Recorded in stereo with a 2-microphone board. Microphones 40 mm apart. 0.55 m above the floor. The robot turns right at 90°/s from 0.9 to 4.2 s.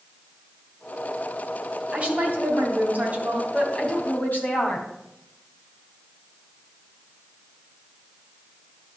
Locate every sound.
1.9 s a woman speaking: 150° right, 3 m; by 4.9 s 55° left, 3 m